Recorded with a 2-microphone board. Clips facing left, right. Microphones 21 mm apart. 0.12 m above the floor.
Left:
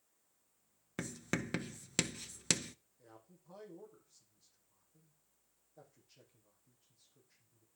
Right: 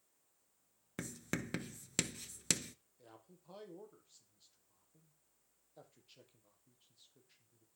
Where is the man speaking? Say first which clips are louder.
Even; 55° right (ahead or behind), 4.5 m.